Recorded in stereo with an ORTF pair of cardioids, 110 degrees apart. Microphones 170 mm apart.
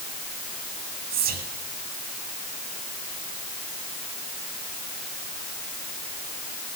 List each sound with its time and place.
1.1 s whispering: 70° right, 2.5 m